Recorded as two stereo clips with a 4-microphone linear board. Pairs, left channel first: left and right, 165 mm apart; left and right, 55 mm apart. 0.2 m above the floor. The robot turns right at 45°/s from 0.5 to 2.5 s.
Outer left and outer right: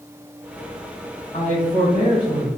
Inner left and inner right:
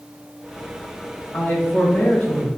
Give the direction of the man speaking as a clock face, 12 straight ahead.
9 o'clock.